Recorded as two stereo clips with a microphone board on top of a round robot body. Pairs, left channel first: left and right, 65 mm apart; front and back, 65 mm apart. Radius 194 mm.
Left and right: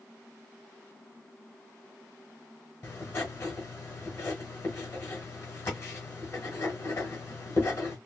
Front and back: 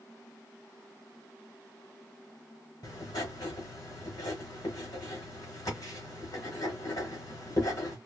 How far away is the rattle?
No rattle in this recording.